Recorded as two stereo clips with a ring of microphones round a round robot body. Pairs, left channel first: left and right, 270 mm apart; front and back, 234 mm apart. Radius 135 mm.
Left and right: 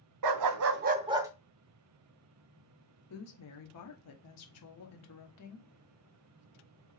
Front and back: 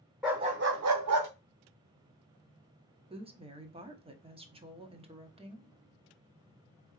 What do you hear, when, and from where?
0.2 s a dog barking: 90° right, 0.6 m; by 1.3 s 170° right, 0.9 m
3.1 s a woman speaking: 115° left, 1.0 m